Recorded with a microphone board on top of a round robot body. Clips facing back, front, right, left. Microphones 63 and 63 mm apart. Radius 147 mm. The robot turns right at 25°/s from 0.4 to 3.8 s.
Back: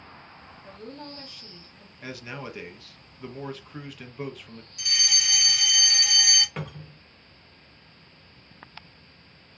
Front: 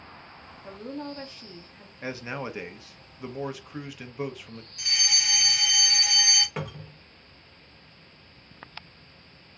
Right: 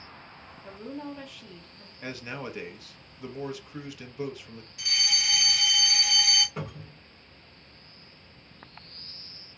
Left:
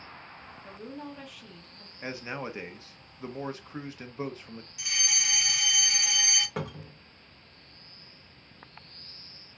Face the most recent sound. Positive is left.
turn(degrees=85)